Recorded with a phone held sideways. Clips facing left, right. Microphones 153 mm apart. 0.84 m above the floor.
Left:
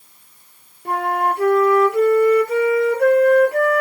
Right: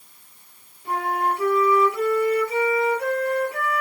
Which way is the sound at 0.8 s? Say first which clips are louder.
Left 4 dB; 60° left (ahead or behind).